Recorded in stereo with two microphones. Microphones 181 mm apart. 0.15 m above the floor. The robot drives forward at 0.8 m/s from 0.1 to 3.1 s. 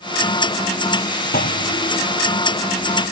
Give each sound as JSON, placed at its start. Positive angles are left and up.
{"t": 1.3, "sound": "a clunk", "side_deg": 55}